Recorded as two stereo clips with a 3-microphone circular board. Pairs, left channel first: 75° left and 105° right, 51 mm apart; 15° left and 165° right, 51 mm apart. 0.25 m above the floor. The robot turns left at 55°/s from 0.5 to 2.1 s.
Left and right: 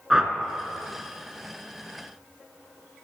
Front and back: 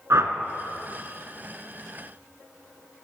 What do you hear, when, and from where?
0.1 s a whoosh: 175° left, 0.7 m